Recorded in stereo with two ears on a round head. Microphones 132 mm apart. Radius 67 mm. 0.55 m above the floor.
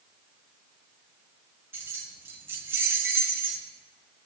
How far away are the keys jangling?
About 1.6 m.